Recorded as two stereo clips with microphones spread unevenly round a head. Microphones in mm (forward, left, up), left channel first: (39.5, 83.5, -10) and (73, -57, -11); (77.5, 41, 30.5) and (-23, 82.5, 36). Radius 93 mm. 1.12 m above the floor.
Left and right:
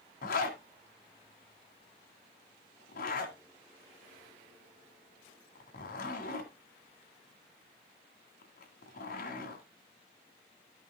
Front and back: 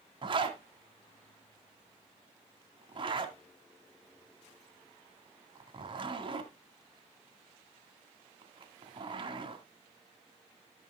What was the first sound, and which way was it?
A zipper, 120° left.